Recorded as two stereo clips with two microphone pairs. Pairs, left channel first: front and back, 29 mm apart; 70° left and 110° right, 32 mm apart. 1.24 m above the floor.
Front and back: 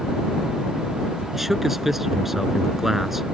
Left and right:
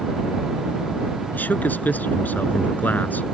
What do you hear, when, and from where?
1.3 s a man speaking: 100° left